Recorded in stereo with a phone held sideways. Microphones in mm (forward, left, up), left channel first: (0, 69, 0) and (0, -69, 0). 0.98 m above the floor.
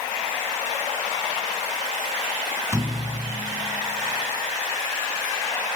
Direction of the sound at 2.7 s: 20° right (ahead or behind).